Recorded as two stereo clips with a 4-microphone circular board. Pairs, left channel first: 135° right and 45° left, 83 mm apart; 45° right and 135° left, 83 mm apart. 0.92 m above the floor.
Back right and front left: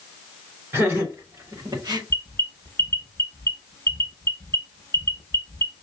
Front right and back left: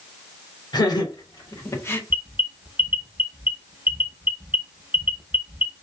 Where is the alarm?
175° right, 1.1 m.